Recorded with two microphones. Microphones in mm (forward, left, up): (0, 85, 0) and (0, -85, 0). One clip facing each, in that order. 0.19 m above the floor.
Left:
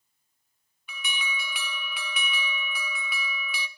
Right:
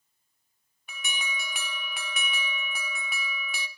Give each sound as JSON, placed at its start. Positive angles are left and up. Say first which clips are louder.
{"t": 0.9, "sound": "an alarm", "louder": "left 2 dB", "side_deg": -50, "distance_m": 1.1}